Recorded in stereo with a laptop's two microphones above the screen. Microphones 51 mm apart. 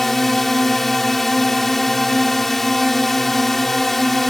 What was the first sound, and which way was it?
A drone, 5° left (ahead or behind).